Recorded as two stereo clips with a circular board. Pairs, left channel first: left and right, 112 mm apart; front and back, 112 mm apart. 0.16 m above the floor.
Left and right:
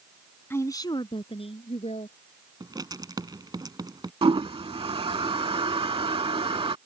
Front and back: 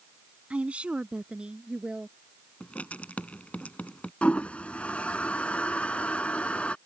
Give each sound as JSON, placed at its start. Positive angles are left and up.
{"t": 0.5, "sound": "a woman speaking", "azimuth_deg": 120}
{"t": 2.6, "sound": "writing", "azimuth_deg": -70}
{"t": 4.2, "sound": "a toilet flushing", "azimuth_deg": -75}